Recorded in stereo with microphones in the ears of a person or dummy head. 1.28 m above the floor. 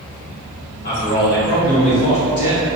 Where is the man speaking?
55° left (ahead or behind), 1.3 m; by 2.7 s 75° left (ahead or behind), 2.5 m.